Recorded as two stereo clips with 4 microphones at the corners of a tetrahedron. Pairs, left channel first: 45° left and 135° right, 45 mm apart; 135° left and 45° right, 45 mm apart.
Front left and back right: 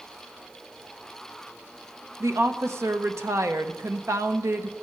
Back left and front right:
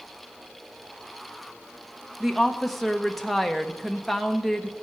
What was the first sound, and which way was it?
A woman speaking, 135° right.